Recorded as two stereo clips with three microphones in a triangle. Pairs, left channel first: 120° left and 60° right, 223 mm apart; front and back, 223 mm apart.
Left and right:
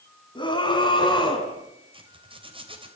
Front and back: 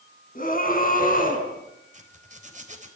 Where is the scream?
50° left, 4.5 m.